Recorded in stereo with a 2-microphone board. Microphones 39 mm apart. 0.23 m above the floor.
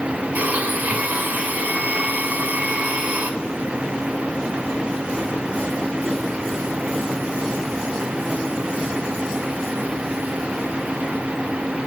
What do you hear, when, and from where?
0.3 s a blender: 40° right (ahead or behind), 1.6 m